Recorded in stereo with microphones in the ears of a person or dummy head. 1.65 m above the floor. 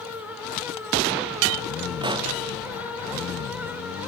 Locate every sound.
2.0 s a pop: 25° right (ahead or behind), 1.1 m